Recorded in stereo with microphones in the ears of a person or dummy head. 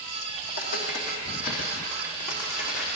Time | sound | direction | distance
0.5 | footsteps | 55° left (ahead or behind) | 3 m